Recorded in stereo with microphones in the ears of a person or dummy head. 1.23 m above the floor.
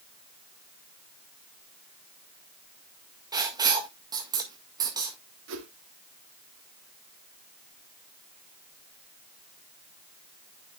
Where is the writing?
25° right (ahead or behind), 1.7 m.